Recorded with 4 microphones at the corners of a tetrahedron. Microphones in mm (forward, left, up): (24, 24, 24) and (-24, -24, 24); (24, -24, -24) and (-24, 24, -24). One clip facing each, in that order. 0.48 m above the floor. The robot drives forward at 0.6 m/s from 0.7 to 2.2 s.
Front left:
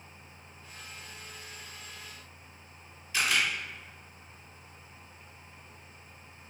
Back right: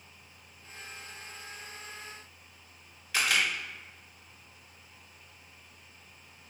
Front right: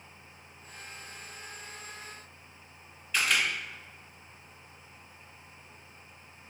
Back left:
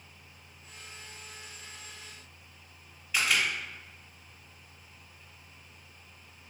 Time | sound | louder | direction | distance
3.1 | a camera shutter | even, even | 140° right | 1.1 m